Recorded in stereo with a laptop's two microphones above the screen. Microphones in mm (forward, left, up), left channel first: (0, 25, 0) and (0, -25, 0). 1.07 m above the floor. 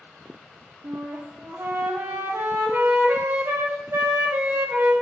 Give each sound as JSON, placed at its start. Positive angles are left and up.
{"t": 0.8, "sound": "a flute", "side_deg": -55, "distance_m": 0.8}